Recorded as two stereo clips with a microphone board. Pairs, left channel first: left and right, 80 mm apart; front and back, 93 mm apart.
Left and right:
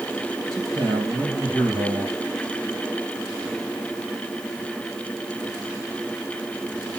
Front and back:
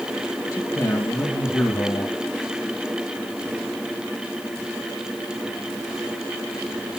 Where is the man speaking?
50° right, 3.5 m.